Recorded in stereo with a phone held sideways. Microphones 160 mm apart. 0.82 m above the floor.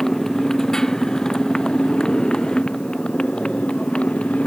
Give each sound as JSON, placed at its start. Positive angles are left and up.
{"t": 0.0, "sound": "a motorcycle", "side_deg": 5}